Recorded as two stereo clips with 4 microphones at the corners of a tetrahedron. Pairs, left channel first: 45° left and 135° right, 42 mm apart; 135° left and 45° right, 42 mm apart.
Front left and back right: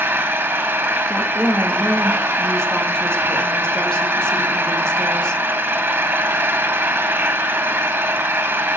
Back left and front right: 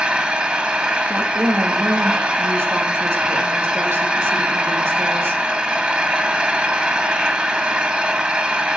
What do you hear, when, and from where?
0.0 s an engine running: 110° right, 2.0 m
1.1 s a woman speaking: 25° right, 1.5 m